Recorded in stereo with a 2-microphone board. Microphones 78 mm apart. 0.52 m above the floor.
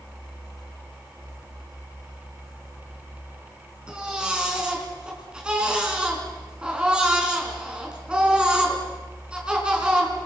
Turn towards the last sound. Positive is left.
turn(degrees=-10)  # may be behind; listen again after turning